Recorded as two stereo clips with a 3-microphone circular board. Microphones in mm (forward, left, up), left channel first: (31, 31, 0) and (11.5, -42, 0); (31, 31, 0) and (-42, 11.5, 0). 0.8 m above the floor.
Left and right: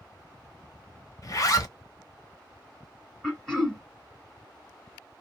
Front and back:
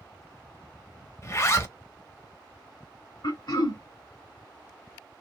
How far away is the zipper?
About 0.7 m.